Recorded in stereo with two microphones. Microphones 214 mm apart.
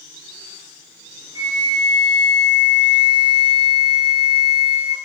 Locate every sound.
1.4 s a flute: 20° right (ahead or behind), 5 m